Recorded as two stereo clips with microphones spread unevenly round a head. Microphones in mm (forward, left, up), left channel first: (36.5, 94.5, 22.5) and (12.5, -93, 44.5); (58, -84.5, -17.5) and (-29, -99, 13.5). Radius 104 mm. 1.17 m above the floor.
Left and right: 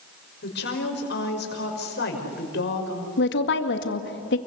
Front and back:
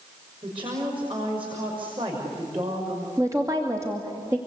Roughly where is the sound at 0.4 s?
Behind left.